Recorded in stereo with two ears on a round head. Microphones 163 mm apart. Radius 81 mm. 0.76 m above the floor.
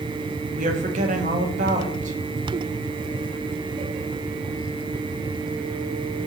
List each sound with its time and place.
0.6 s a woman speaking: 45° right (ahead or behind), 1.2 m